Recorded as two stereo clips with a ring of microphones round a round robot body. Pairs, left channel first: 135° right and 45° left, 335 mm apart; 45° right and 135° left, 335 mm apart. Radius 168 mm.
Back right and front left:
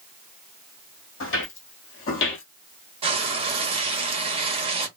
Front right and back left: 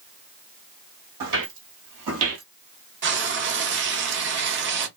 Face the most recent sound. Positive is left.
turn(degrees=110)